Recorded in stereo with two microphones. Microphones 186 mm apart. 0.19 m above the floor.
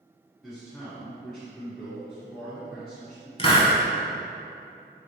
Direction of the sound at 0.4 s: 5° left (ahead or behind).